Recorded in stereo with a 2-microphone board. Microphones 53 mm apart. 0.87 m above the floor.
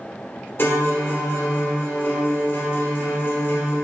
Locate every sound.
0.6 s a guitar: 45° left (ahead or behind), 1.7 m